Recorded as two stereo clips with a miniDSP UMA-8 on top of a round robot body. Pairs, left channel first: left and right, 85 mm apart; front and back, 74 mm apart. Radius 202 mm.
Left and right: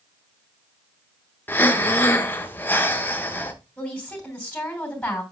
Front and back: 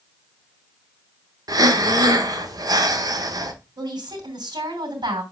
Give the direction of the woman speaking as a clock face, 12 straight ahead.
6 o'clock.